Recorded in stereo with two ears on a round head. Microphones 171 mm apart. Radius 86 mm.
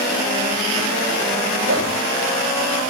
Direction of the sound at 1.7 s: 70° right (ahead or behind).